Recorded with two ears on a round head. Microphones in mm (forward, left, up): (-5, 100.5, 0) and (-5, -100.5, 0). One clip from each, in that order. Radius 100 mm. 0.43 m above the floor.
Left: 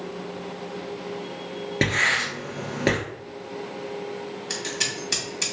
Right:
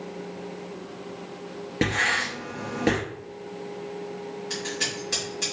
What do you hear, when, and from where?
1.8 s writing: 20° left (ahead or behind), 1.6 m
4.5 s scissors: 40° left (ahead or behind), 2 m